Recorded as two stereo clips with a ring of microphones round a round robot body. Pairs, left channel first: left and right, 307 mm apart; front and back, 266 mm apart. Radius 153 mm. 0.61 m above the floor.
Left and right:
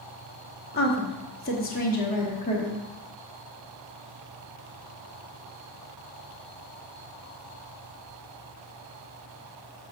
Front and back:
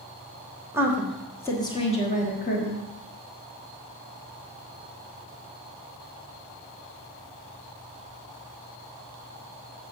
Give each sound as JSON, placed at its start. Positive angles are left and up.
{"t": 0.7, "sound": "a woman speaking", "azimuth_deg": 110, "distance_m": 1.1}